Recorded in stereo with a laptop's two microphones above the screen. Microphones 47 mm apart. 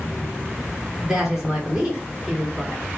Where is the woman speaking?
15° right (ahead or behind), 1.6 m.